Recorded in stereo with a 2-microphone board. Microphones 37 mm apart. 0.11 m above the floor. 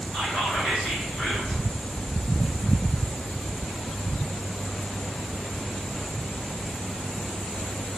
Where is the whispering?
25° left (ahead or behind), 1.5 m.